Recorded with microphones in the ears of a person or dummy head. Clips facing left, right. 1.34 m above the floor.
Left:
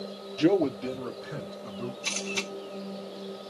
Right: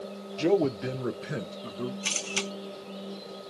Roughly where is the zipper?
No zipper in this recording.